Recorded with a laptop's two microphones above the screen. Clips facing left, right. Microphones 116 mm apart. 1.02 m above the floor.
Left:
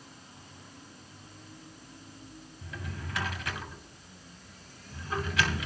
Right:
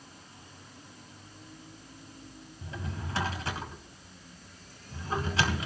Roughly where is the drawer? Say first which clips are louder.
Right 3 dB; right.